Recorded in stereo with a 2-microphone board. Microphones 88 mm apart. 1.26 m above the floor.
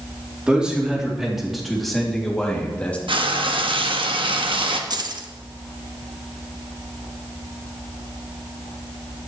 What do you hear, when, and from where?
0.5 s a man speaking: 10° right (ahead or behind), 3.5 m; by 3.0 s 15° left (ahead or behind), 2.5 m
3.1 s frying: 75° right (ahead or behind), 1.1 m
4.9 s keys jangling: 50° right (ahead or behind), 1.0 m